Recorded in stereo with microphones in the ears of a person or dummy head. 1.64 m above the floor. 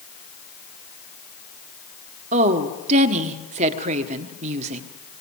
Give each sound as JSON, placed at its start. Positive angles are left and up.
{"t": 2.3, "sound": "a woman speaking", "side_deg": -40, "distance_m": 1.4}